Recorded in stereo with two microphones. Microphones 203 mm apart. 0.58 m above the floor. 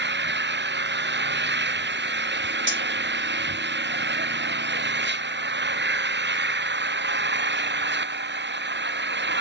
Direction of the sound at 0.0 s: 60° right (ahead or behind).